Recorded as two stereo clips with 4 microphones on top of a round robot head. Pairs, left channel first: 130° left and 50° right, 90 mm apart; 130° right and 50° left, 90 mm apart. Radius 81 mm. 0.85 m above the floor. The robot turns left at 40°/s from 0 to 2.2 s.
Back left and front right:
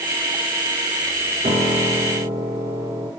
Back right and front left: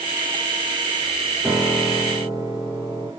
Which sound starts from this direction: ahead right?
A piano, at 1.4 s.